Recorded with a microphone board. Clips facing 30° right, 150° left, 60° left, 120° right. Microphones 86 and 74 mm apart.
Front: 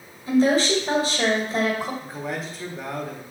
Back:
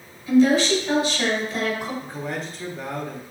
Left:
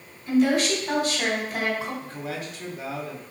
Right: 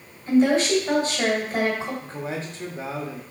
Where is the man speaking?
115° right, 0.9 m.